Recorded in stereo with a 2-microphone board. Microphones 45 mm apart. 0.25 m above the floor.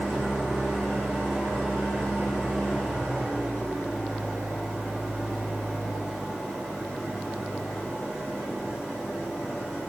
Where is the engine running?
15° right (ahead or behind), 9 m.